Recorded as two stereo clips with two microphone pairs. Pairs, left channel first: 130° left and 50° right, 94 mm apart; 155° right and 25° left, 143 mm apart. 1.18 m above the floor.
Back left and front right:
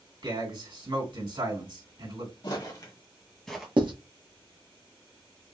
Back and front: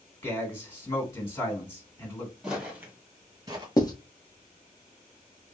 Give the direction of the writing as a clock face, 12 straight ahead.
3 o'clock.